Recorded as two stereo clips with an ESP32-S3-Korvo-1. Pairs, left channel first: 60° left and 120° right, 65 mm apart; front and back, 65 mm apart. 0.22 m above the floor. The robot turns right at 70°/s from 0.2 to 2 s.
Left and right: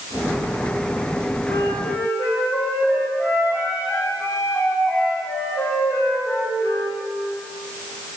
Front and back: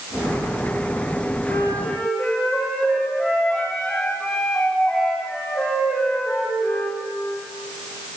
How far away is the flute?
About 6 m.